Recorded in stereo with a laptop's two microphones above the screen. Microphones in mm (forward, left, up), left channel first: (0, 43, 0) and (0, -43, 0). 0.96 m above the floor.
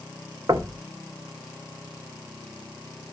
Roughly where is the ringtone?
I don't hear a ringtone.